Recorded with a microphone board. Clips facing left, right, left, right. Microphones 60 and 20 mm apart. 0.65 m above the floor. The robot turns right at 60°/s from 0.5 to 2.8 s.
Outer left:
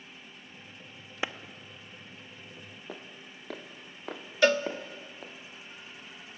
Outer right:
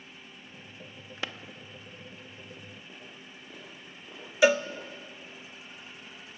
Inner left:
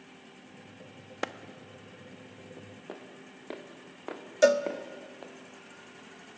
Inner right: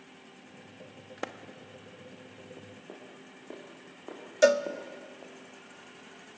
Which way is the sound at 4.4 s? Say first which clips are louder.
Outer right 2 dB, even; 10° right (ahead or behind).